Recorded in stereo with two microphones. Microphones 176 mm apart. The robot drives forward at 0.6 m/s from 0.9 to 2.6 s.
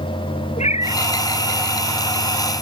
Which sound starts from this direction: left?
A cat meowing, at 0.6 s.